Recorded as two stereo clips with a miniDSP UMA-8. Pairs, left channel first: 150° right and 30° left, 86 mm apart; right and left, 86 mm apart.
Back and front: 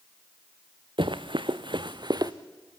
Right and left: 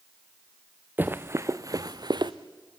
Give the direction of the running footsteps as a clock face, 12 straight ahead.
11 o'clock.